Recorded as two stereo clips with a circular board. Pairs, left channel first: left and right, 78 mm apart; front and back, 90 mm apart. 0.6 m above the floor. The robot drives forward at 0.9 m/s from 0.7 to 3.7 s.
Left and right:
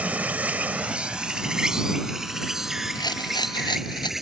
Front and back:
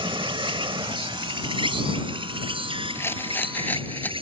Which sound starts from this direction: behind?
An insect, at 0.0 s.